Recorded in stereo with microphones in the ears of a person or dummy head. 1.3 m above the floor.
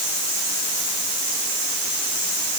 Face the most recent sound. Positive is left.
No sound to turn to.